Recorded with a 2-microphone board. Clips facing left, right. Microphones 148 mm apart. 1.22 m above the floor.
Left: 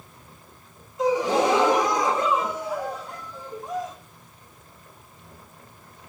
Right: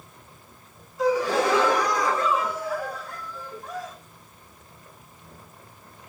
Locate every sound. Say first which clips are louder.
1.0 s a gasp: left 1 dB; 20° left (ahead or behind), 1.4 m